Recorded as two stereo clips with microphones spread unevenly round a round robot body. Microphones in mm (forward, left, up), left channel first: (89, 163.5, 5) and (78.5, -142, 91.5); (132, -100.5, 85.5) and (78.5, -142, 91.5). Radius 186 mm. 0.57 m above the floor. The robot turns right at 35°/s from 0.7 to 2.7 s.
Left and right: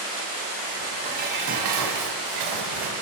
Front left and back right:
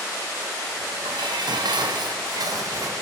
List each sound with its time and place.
1.0 s dishes clattering: 165° right, 3.5 m; by 3.0 s 110° right, 3.5 m